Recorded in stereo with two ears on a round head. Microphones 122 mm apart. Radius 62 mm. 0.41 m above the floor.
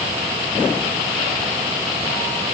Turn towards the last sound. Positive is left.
No sound to turn to.